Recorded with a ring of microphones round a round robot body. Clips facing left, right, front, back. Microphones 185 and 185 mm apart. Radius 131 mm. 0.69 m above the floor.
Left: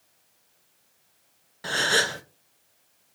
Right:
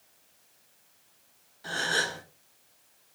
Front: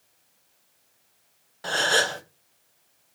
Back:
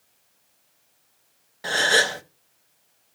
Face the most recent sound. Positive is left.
turn(degrees=100)